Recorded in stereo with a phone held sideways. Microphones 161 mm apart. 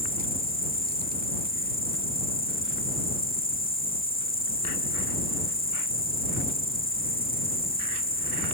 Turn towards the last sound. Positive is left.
turn(degrees=65)  # may be behind; listen again after turning